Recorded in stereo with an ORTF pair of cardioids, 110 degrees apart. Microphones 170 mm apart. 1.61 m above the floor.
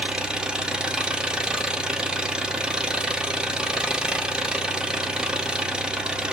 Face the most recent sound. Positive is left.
turn(degrees=-5)